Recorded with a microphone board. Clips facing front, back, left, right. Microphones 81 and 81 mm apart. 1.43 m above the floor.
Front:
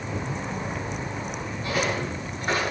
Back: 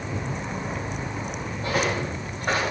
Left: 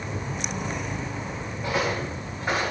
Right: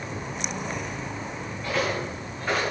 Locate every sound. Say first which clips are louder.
1.6 s footsteps: back 2 dB, left 1 dB; 160° left, 4.5 m